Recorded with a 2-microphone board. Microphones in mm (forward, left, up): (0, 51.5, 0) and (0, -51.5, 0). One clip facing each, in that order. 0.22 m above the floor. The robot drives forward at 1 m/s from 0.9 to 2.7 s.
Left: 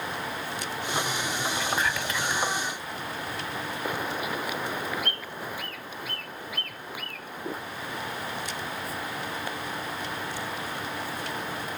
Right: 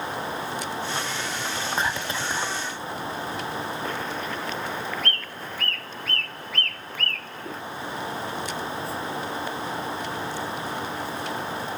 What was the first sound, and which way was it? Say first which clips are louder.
Whispering: right 3 dB; 25° right (ahead or behind).